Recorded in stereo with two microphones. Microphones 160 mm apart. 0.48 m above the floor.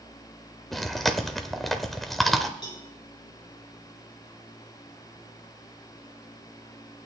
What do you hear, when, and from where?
0.7 s chewing: centre (ahead or behind), 0.7 m
2.6 s a cowbell: 30° left (ahead or behind), 3 m